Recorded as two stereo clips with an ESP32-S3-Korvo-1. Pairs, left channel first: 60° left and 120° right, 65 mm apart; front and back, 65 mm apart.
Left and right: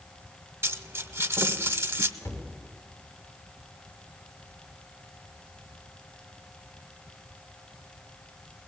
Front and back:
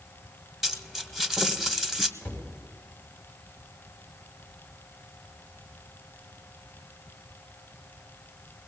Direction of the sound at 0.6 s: 95° right.